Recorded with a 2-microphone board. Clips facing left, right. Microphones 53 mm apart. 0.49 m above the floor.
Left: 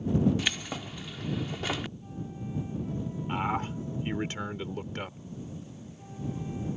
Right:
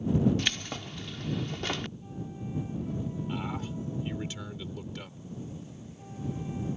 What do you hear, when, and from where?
0.4 s keys jangling: 5° left (ahead or behind)
3.3 s a man speaking: 45° left (ahead or behind)